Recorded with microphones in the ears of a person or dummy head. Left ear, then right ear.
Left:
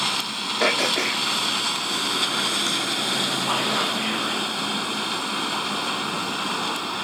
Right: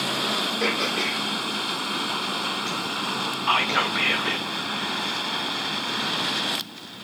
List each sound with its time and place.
0.6 s throat clearing: 45° left (ahead or behind), 1.5 m
3.5 s whispering: 75° right (ahead or behind), 0.6 m